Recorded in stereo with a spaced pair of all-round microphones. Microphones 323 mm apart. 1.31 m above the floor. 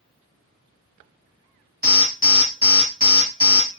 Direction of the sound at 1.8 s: 30° right (ahead or behind).